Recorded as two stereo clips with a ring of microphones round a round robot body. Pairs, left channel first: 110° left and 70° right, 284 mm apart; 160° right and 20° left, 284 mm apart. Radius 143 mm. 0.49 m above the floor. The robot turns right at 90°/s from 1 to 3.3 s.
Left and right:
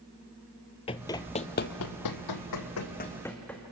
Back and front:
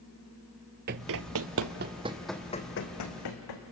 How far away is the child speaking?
No child speaking in this recording.